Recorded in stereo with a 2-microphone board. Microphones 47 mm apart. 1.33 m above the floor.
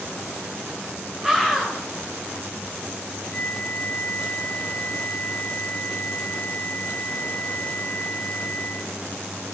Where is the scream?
10° right (ahead or behind), 3 m.